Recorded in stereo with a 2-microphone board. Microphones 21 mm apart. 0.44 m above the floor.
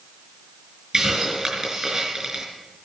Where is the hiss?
35° right (ahead or behind), 4.5 m.